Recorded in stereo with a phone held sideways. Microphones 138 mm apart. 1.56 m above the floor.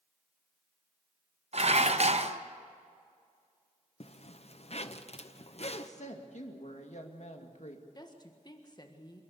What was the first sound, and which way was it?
Dishes clattering, 55° right (ahead or behind).